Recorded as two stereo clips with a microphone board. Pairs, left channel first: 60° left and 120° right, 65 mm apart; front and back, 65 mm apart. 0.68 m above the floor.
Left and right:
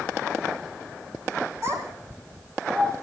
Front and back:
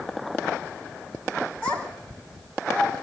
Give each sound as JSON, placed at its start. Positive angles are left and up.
{"t": 1.6, "sound": "a child speaking", "azimuth_deg": -75, "distance_m": 4.0}